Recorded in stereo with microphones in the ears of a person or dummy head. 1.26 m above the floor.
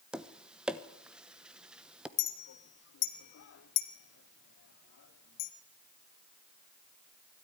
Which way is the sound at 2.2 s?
55° left (ahead or behind).